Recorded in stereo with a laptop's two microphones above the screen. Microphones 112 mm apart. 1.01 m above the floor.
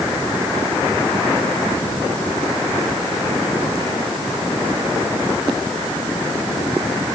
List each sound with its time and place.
Only background noise.